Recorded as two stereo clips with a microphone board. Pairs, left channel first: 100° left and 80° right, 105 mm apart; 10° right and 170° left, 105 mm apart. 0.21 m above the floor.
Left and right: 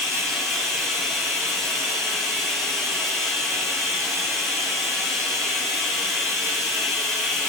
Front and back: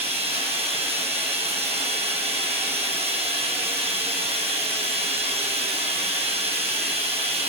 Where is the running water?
170° right, 4 m.